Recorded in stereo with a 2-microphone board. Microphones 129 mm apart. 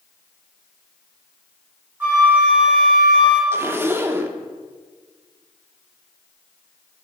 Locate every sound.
2.0 s a flute: 15° right (ahead or behind), 2.5 m
3.5 s a zipper: 15° right (ahead or behind), 0.5 m